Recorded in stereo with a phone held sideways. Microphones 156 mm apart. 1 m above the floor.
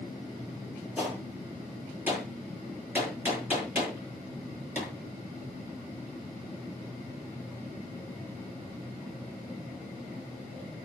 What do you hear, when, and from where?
1.0 s a gunshot: 10° right (ahead or behind), 9.5 m